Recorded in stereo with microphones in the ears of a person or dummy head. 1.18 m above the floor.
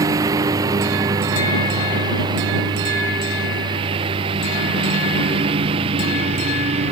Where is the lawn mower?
20° right (ahead or behind); by 6.9 s 35° right (ahead or behind).